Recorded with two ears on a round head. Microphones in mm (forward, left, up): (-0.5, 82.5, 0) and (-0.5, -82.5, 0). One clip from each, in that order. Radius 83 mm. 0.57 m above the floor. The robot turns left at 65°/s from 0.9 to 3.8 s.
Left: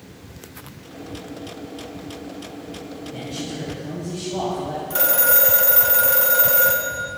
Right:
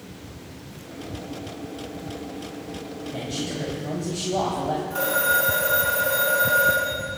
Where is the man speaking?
25° right, 2.5 m; by 4.8 s 70° right, 2.5 m.